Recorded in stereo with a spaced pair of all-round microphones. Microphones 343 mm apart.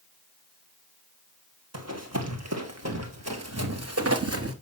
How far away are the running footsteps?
About 3 m.